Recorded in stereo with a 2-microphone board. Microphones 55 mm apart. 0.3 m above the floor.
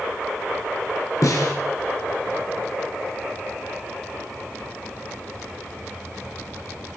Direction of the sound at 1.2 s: 70° left (ahead or behind).